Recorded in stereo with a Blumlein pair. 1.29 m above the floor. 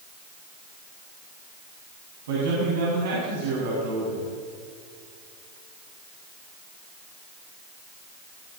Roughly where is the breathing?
No breathing in this recording.